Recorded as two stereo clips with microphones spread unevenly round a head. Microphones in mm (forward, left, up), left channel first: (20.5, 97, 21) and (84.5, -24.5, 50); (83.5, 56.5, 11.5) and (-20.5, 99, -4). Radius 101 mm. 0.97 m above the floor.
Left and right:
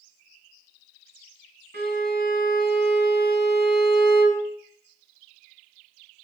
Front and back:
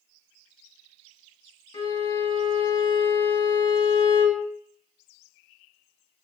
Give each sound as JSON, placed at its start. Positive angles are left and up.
{"t": 1.7, "sound": "a violin", "azimuth_deg": -75, "distance_m": 1.8}